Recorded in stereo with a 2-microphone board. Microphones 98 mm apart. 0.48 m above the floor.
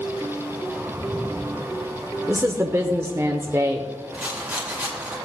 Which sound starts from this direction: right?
A woman speaking, at 2.3 s.